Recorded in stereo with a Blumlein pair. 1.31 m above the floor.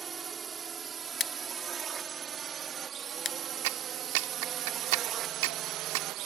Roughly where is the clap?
Ahead right.